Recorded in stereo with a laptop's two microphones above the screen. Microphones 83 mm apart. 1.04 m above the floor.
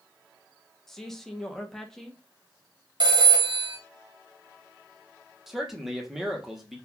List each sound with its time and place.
0.9 s a man speaking: 5° left (ahead or behind), 0.7 m
3.0 s a phone ringing: 70° right (ahead or behind), 1.0 m
5.5 s a man speaking: 5° right (ahead or behind), 0.8 m